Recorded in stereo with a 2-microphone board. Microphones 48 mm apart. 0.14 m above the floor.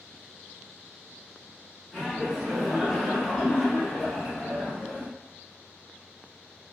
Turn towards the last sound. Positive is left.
turn(degrees=10)  # may be behind; listen again after turning